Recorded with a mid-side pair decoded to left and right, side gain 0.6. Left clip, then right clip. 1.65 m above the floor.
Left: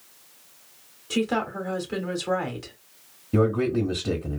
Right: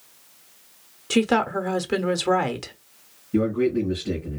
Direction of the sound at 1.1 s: 45° right.